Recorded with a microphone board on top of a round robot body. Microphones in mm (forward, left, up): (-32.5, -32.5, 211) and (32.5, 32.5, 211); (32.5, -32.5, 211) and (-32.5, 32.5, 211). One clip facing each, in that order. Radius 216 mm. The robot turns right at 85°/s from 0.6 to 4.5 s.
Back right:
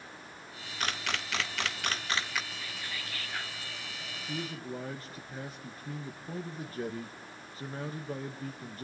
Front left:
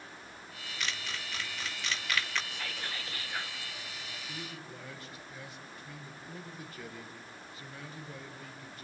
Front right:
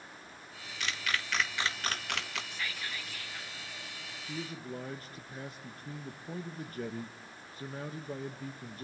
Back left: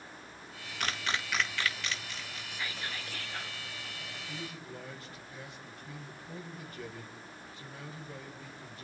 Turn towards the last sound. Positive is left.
turn(degrees=-90)